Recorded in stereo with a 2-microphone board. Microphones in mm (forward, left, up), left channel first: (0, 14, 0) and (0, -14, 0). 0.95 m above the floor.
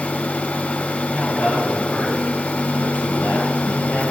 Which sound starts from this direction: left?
A man speaking, at 1.1 s.